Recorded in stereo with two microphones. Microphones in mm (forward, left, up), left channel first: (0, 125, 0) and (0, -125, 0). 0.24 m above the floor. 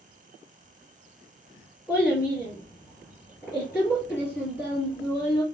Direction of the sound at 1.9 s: 10° left (ahead or behind).